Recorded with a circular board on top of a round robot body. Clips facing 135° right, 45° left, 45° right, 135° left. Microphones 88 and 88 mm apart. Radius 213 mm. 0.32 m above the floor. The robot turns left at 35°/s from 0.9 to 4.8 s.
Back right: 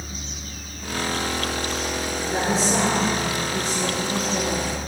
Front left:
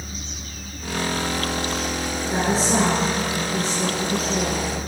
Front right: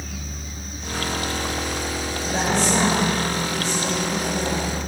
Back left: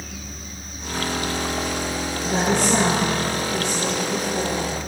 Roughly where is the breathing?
No breathing in this recording.